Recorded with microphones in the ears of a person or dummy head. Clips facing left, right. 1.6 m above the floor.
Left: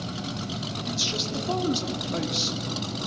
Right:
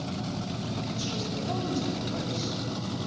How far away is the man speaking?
About 3.5 m.